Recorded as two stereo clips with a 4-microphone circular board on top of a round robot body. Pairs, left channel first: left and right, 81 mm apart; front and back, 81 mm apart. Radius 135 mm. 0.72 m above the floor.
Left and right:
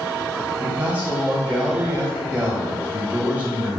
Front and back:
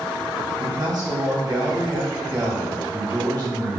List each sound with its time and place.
0.6 s a man speaking: 155° right, 1.4 m